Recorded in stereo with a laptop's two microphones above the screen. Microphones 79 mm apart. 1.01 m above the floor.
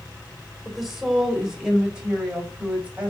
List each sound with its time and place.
0.7 s a woman speaking: centre (ahead or behind), 4 m; by 3.1 s 15° right (ahead or behind), 5.5 m